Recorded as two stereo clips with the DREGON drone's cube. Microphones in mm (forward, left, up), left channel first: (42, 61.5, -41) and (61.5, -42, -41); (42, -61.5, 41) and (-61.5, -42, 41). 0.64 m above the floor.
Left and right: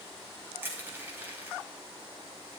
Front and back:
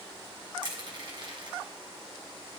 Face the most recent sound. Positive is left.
turn(degrees=-150)